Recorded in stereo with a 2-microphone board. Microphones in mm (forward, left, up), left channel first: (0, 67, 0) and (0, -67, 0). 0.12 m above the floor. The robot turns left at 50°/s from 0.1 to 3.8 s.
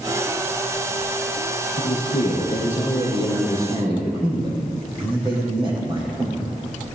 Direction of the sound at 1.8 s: 65° left.